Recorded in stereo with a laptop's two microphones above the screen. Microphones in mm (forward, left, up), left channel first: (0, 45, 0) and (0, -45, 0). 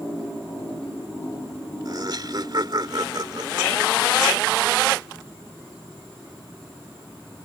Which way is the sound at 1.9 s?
55° right (ahead or behind).